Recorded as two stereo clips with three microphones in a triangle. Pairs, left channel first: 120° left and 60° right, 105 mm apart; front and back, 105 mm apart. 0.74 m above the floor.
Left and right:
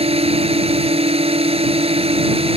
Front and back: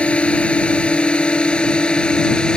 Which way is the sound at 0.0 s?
80° right.